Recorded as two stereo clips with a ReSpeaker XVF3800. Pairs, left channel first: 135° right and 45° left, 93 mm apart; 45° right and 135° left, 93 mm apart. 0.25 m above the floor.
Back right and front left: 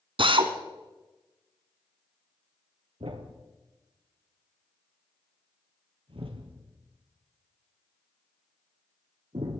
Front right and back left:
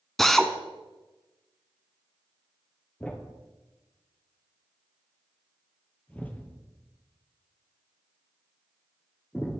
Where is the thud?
30° left, 1.9 m.